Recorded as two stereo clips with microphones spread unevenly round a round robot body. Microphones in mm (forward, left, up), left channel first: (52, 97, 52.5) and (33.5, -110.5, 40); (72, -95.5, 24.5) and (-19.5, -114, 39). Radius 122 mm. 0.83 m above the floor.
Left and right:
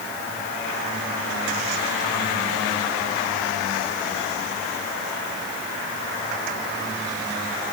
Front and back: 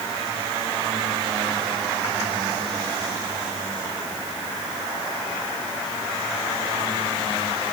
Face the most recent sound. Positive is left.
No sound to turn to.